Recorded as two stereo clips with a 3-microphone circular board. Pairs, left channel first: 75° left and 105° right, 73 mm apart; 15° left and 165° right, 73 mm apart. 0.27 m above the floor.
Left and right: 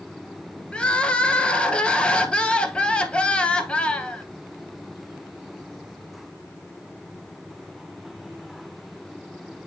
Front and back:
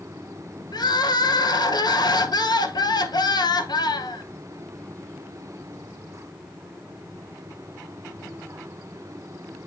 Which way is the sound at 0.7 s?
Straight ahead.